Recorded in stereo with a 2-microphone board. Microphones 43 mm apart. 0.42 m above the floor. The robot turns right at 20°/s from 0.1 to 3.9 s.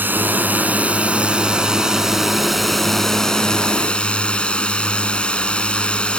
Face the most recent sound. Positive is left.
turn(degrees=25)